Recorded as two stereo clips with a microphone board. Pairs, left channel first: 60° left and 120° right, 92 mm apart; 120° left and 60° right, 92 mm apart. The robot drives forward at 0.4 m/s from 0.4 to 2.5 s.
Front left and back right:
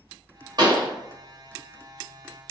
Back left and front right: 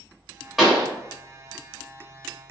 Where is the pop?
145° right, 0.9 m; by 0.9 s 150° right, 1.0 m.